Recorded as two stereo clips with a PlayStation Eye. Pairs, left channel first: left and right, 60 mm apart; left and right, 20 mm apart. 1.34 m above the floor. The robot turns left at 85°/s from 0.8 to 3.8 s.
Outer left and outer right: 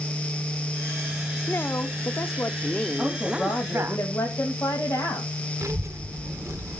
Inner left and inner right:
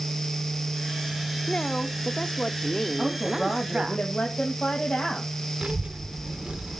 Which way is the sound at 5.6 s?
60° right (ahead or behind).